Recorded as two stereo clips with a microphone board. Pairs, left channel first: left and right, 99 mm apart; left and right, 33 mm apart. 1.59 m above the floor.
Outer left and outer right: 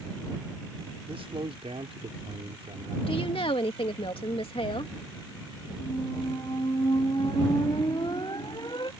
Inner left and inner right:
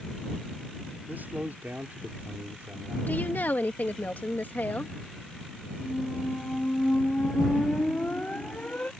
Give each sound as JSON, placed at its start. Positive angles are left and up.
{"t": 1.1, "sound": "a man speaking", "side_deg": -80}
{"t": 3.1, "sound": "a woman speaking", "side_deg": 75}
{"t": 5.8, "sound": "a squeak", "side_deg": 50}